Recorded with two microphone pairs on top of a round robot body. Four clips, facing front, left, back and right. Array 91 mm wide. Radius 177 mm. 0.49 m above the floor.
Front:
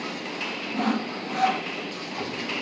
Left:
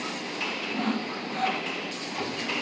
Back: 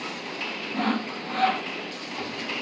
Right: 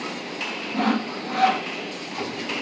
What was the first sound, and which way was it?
Sawing, 95° right.